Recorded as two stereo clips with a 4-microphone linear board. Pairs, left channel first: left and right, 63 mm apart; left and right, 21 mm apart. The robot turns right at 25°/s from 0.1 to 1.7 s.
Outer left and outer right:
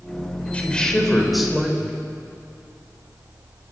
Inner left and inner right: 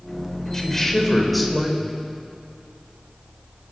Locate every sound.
0.5 s a woman speaking: 20° left (ahead or behind), 4 m; by 2.0 s 10° right (ahead or behind), 4 m